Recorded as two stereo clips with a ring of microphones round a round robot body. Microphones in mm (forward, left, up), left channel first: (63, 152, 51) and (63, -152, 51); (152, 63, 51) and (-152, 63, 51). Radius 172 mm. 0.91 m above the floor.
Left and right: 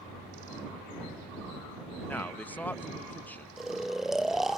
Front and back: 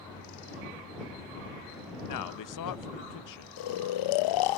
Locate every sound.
2.1 s a man speaking: 5° left
3.6 s snoring: straight ahead